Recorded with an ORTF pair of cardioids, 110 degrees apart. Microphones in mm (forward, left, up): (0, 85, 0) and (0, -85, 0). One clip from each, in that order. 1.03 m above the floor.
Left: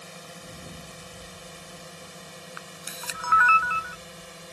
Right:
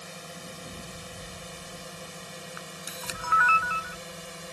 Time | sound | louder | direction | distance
0.0 | a drone | right 1 dB | 10° right | ?
2.6 | a camera shutter | left 2 dB | 15° left | ?